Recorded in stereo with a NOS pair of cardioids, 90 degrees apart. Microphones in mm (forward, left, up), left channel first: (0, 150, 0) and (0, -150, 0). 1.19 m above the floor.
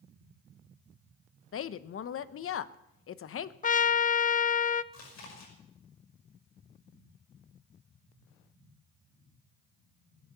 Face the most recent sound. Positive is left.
turn(degrees=65)